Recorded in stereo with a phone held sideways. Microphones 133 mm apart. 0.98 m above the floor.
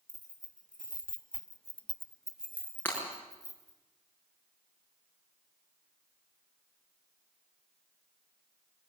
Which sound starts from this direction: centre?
Breaking glass, at 2.9 s.